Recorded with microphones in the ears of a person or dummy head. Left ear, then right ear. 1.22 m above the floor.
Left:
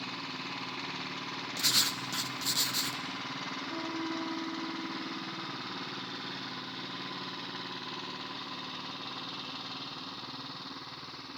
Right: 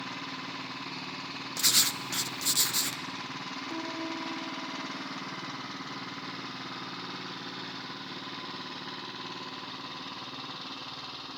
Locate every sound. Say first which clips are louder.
1.6 s writing: right 2 dB; 5° right (ahead or behind), 0.7 m
3.7 s a piano: right 1 dB; 80° right, 5 m